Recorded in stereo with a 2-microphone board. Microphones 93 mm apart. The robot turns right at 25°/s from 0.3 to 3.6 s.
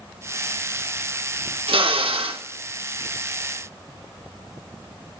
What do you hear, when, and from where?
1.7 s a drill: 75° right (ahead or behind), 1.2 m; by 2.4 s 80° right, 1.2 m